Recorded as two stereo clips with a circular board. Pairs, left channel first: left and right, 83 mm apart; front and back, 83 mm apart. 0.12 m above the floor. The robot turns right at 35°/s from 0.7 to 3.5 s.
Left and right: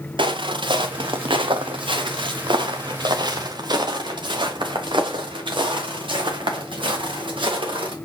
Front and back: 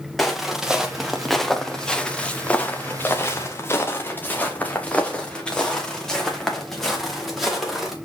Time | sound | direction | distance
0.2 | footsteps | 90° right | 1.7 m